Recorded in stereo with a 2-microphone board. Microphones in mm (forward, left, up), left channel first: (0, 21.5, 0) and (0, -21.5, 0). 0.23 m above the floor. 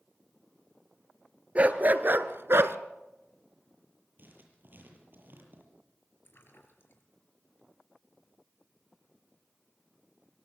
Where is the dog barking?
30° right (ahead or behind), 1.7 m; by 2.8 s 75° right (ahead or behind), 1.2 m.